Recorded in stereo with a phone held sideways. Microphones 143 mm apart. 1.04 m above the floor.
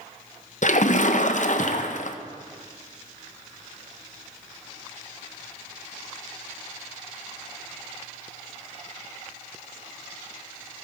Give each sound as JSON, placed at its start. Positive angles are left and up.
{"t": 0.6, "sound": "a splash", "side_deg": 60, "distance_m": 0.6}